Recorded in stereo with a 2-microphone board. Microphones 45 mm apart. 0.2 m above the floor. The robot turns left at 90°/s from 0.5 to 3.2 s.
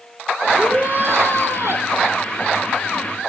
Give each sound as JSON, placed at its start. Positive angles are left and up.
{"t": 0.6, "sound": "a shout", "azimuth_deg": -15, "distance_m": 3.5}